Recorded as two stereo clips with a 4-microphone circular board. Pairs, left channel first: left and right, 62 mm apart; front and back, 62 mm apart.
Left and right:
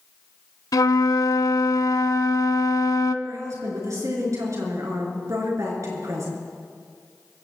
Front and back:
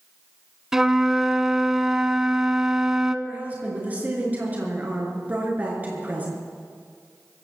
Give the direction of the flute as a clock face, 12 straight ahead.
9 o'clock.